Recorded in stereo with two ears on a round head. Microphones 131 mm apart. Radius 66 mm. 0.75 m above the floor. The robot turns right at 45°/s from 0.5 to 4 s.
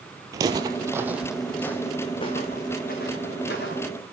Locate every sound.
0.3 s footsteps: 25° right (ahead or behind), 0.9 m; by 3.9 s 65° left (ahead or behind), 4 m